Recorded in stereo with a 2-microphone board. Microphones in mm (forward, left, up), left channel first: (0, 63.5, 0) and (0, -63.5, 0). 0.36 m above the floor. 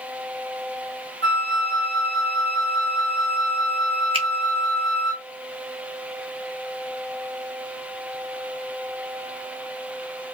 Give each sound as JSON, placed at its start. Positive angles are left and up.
{"t": 1.2, "sound": "a flute", "side_deg": 10, "distance_m": 1.1}
{"t": 4.1, "sound": "a finger snap", "side_deg": -45, "distance_m": 2.0}